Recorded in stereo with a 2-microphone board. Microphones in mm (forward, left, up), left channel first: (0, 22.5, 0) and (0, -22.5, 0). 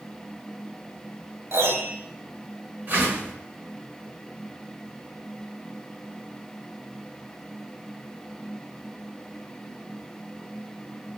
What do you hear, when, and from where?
1.5 s a piano: 65° right (ahead or behind), 0.8 m
2.9 s a whoosh: 45° right (ahead or behind), 0.8 m